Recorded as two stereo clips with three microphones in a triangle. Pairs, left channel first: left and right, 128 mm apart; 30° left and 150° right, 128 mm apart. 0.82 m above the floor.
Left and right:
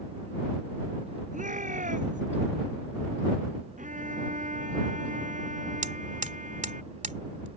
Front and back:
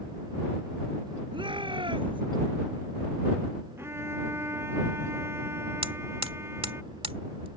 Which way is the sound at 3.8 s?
80° right.